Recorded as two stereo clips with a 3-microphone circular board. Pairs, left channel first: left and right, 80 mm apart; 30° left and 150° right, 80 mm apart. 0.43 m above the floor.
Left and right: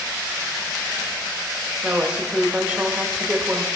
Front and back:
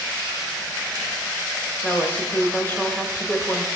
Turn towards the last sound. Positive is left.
turn(degrees=-20)